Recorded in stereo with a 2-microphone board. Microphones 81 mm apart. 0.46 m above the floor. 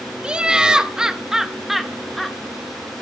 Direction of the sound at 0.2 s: 10° right (ahead or behind).